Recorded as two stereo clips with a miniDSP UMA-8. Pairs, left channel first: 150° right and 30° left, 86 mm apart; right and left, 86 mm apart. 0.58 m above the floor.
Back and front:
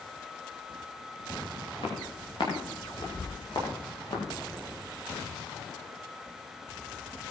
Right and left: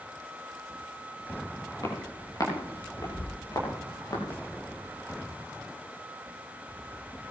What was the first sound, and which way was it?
Footsteps, 135° right.